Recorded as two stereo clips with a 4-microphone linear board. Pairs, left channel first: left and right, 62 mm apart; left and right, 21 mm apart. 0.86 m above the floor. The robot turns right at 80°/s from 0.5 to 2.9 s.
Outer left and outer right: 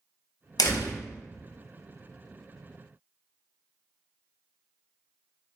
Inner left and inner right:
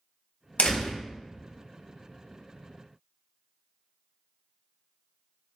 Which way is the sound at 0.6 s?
85° left.